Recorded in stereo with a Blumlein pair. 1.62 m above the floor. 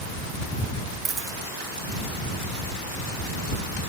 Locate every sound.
1.1 s a dropped coin: 20° right